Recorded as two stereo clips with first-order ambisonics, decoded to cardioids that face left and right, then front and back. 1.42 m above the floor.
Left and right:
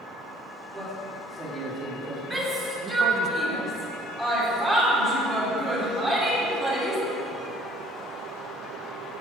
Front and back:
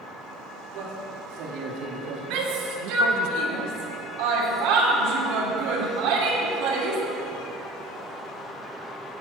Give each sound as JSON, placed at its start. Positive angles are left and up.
{"t": 0.7, "sound": "a man speaking", "azimuth_deg": -160, "distance_m": 3.5}
{"t": 2.3, "sound": "a shout", "azimuth_deg": -160, "distance_m": 3.0}